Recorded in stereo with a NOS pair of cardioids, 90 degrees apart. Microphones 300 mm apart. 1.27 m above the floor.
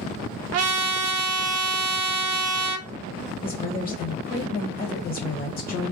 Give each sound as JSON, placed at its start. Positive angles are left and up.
{"t": 0.5, "sound": "a trumpet", "azimuth_deg": -55, "distance_m": 0.6}
{"t": 3.4, "sound": "a woman speaking", "azimuth_deg": 30, "distance_m": 1.3}